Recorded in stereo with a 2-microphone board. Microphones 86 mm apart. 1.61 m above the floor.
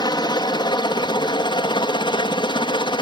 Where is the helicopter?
55° left (ahead or behind); by 3.0 s 65° left (ahead or behind).